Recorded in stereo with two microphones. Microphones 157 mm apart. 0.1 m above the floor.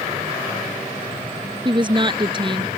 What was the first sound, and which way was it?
A woman speaking, 30° right (ahead or behind).